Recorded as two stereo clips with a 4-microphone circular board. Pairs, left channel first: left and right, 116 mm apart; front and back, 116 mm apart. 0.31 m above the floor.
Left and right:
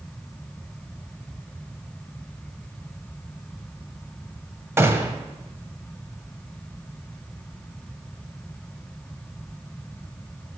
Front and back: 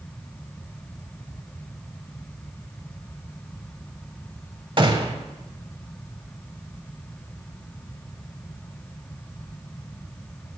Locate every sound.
4.8 s a gunshot: 150° right, 0.8 m